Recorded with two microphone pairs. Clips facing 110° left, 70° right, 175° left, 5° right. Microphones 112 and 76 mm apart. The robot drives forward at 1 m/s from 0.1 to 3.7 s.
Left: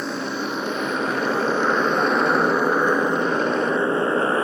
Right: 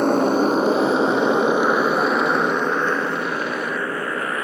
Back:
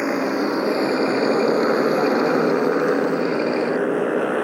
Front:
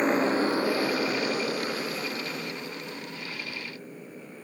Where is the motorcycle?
105° right; by 4.4 s 170° left.